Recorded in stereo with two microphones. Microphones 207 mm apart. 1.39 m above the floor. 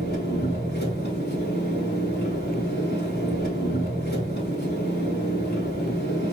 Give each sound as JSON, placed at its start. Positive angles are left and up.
{"t": 0.0, "sound": "an engine running", "side_deg": 55, "distance_m": 4.0}